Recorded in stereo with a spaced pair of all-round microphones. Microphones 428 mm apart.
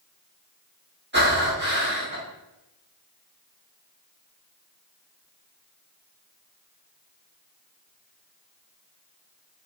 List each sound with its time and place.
1.1 s breathing: 25° right (ahead or behind), 1.2 m